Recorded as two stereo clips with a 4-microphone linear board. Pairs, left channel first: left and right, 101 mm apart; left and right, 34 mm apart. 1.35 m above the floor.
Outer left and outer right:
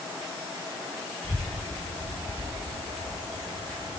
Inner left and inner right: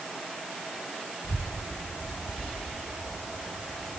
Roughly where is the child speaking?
Right.